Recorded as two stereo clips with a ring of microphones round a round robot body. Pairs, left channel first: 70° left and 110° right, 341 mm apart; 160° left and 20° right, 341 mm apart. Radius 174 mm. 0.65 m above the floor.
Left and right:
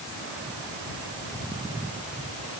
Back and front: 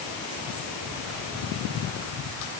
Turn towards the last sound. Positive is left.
No sound to turn to.